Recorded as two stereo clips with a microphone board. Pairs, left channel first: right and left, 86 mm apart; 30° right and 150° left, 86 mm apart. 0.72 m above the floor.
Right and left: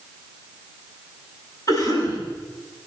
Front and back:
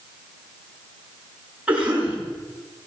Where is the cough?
135° right, 7 m.